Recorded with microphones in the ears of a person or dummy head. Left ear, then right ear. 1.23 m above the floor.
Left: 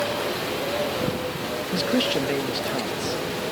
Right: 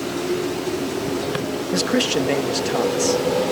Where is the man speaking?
20° right (ahead or behind).